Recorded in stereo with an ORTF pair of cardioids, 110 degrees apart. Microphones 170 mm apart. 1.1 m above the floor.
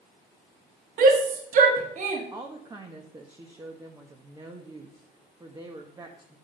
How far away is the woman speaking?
About 1.4 m.